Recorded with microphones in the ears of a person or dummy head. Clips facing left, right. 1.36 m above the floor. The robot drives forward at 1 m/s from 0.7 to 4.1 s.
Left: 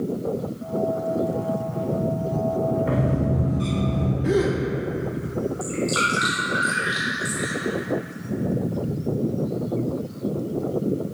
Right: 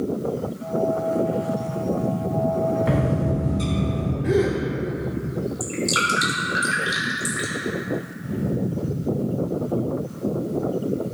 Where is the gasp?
10° left (ahead or behind), 0.9 m.